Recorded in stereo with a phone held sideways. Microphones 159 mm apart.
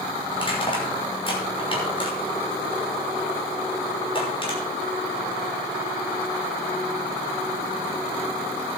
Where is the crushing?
35° left (ahead or behind), 6 m.